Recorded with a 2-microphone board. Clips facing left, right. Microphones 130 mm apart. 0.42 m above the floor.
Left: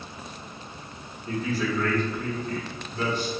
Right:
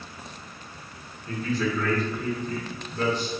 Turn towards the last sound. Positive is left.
turn(degrees=-40)  # may be behind; listen again after turning